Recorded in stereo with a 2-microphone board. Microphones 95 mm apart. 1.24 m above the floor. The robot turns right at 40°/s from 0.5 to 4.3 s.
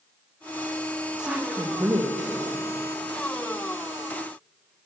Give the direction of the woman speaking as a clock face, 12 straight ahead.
6 o'clock.